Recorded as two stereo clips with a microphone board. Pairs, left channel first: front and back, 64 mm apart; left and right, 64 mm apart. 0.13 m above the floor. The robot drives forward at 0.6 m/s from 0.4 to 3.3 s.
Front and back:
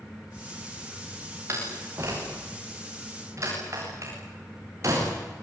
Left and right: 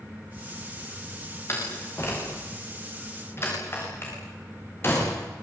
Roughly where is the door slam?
Behind left.